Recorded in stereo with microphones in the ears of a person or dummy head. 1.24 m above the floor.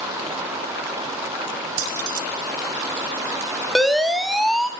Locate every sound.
1.8 s keys jangling: 70° right (ahead or behind), 1.1 m
3.8 s a siren: 5° right (ahead or behind), 2.5 m